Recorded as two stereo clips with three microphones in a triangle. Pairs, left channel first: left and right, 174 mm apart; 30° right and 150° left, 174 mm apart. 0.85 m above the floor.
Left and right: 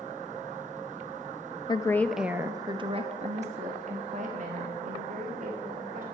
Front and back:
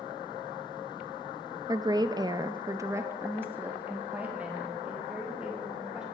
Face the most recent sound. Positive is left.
turn(degrees=-125)